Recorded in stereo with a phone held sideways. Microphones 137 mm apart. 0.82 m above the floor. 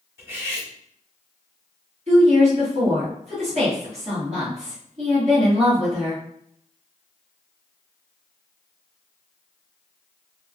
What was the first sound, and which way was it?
Cutlery clinking, 15° right (ahead or behind).